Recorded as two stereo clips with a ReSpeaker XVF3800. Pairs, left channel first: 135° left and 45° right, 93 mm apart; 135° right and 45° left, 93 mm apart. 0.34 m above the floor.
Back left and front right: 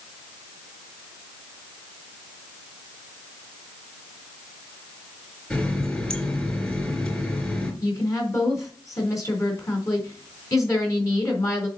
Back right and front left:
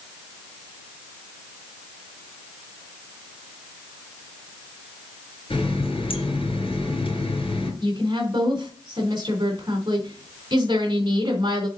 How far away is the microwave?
I don't hear a microwave.